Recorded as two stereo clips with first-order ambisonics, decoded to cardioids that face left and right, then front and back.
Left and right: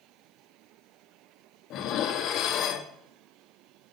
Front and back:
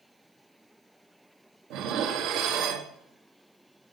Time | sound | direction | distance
1.7 | dishes clattering | 140° left | 1.4 m